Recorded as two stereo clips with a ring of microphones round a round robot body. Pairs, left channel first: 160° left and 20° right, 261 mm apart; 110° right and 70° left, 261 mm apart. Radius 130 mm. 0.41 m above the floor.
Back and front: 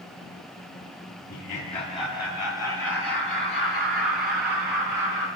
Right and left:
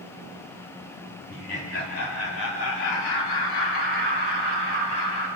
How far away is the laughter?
About 1.2 m.